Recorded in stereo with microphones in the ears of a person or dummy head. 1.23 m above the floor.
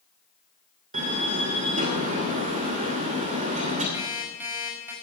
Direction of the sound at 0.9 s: 45° right (ahead or behind).